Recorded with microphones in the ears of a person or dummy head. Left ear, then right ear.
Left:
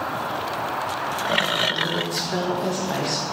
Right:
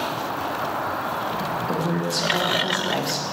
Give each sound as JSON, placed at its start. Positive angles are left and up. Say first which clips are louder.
{"t": 1.7, "sound": "a woman speaking", "louder": "left 1 dB", "side_deg": -5, "distance_m": 1.6}